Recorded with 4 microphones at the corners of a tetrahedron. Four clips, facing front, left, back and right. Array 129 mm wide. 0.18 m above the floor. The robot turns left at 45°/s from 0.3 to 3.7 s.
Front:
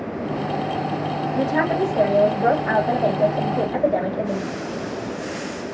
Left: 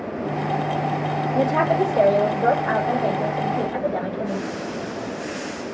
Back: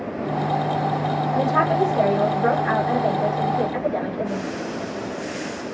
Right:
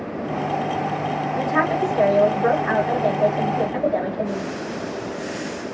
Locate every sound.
1.4 s a woman speaking: 95° left, 3.5 m; by 4.5 s 10° right, 3.5 m